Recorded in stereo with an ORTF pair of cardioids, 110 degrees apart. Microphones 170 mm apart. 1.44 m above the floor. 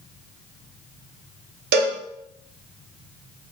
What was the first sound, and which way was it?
A cowbell, 70° right.